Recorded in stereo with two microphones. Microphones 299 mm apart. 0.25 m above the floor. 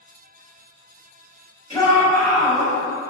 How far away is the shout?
About 0.9 m.